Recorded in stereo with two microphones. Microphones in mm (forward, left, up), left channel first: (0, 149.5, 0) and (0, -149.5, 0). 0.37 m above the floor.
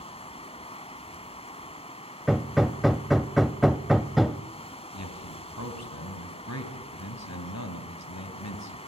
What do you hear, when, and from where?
0.0 s running water: 20° left (ahead or behind), 1.3 m
2.3 s hammering: centre (ahead or behind), 0.5 m
4.9 s a man speaking: 65° left (ahead or behind), 3 m